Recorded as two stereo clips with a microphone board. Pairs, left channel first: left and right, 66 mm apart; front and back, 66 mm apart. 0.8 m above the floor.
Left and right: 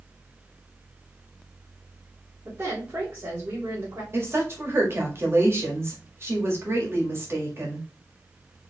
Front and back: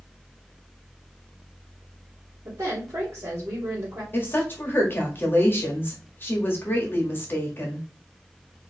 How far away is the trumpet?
I don't hear a trumpet.